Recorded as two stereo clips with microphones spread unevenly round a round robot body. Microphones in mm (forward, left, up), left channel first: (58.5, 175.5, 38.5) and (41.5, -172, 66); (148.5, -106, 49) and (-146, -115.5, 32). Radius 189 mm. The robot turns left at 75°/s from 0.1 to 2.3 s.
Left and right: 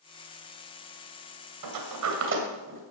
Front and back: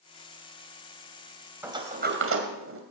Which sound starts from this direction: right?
A sliding door, at 1.6 s.